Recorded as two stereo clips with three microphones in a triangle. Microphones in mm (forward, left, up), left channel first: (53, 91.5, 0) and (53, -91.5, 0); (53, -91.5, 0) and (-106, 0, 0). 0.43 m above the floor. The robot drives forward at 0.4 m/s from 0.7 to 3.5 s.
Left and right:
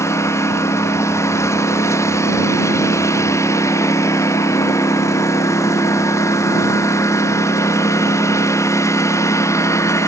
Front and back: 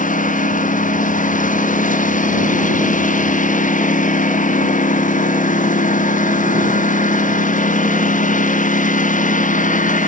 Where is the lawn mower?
15° left.